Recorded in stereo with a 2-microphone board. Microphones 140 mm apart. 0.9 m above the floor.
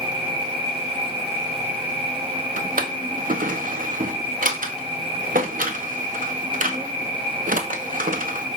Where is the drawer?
70° right (ahead or behind), 0.6 m.